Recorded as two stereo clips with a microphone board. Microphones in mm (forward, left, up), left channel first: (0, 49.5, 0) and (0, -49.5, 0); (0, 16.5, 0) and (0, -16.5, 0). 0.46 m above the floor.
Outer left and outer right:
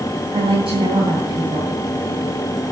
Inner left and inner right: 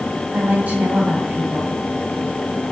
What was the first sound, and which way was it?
A woman speaking, 65° right (ahead or behind).